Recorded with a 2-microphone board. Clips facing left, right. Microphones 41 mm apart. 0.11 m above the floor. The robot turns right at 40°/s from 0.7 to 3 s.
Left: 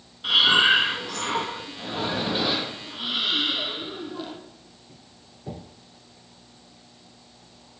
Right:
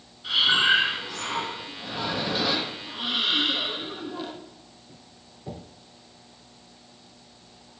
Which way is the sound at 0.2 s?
90° left.